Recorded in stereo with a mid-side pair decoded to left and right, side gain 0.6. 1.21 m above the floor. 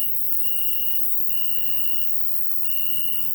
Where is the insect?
20° left, 0.9 m.